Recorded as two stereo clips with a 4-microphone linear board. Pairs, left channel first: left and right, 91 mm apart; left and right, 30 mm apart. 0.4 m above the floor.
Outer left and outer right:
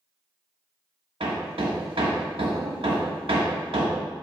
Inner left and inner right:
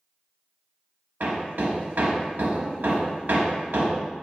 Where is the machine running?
I don't hear a machine running.